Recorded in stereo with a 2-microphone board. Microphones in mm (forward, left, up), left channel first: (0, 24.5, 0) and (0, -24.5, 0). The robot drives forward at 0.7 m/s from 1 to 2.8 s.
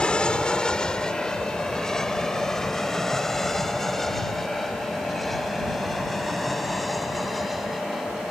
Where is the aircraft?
20° left (ahead or behind); by 8.3 s centre (ahead or behind).